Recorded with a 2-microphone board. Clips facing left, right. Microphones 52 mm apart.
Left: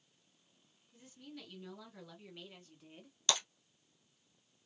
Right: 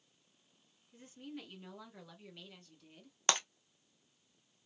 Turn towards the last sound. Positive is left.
turn(degrees=-40)  # may be behind; listen again after turning